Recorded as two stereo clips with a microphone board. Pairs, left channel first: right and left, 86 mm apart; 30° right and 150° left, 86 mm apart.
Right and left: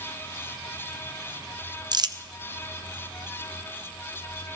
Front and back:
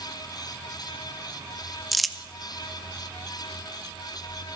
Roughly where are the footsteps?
No footsteps in this recording.